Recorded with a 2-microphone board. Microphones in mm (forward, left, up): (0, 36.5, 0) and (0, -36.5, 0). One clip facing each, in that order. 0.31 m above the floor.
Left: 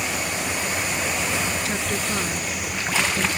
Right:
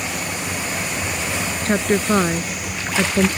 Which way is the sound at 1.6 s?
45° right (ahead or behind).